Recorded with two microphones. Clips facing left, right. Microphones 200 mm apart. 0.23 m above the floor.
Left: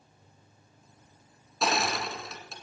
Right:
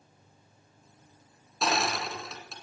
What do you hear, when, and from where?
1.6 s crushing: centre (ahead or behind), 1.8 m